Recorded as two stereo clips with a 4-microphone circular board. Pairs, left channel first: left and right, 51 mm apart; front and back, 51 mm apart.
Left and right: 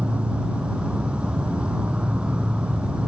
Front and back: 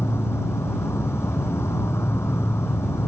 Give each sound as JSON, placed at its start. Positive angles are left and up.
{"t": 0.0, "sound": "an insect", "azimuth_deg": -25}